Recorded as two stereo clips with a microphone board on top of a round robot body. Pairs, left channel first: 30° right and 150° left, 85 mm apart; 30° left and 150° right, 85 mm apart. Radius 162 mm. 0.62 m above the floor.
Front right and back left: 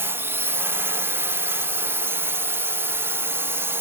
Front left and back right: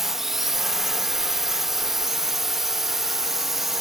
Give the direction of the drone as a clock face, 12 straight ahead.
8 o'clock.